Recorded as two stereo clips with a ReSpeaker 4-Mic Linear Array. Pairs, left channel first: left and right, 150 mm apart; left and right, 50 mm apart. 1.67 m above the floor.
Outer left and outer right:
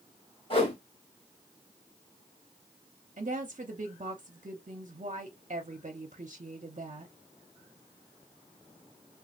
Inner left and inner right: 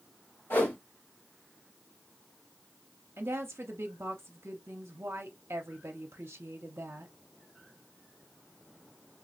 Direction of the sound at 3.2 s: 55° right (ahead or behind).